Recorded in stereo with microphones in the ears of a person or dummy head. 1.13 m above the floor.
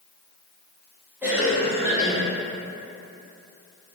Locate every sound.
1.2 s a cough: 10° right (ahead or behind), 1.2 m